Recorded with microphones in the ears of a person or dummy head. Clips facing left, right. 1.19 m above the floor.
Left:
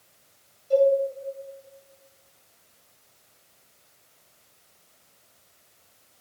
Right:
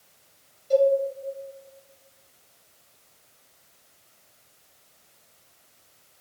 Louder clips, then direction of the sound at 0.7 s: Even; 25° right (ahead or behind).